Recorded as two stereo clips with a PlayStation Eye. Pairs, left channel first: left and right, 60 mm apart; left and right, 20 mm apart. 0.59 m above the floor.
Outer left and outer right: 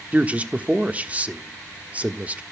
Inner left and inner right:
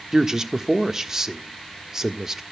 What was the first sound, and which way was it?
A man speaking, 25° right (ahead or behind).